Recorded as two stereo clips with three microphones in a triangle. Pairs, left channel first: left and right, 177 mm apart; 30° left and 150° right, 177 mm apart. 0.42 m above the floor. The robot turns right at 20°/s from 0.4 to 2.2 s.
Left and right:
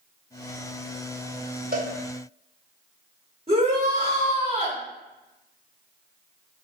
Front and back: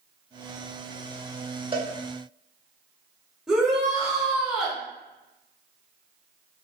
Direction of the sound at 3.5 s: 65° right.